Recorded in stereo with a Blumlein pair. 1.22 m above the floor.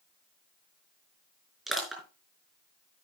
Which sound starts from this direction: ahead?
Crushing, at 1.7 s.